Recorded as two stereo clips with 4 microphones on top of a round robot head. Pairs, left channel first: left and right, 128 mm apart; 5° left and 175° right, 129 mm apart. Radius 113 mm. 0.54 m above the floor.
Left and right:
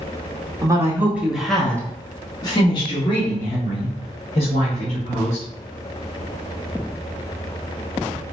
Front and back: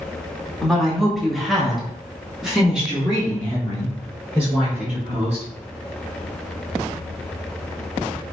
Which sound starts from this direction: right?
A woman speaking, at 0.6 s.